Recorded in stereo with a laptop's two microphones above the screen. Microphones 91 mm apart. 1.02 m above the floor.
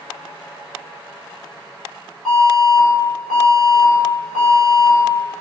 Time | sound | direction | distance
2.2 | an alarm | 5° left (ahead or behind) | 3.5 m